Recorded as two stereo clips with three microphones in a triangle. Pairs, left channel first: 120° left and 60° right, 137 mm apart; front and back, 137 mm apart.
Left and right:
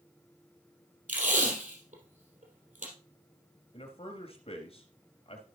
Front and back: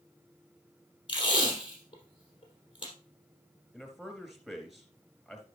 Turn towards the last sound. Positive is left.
turn(degrees=90)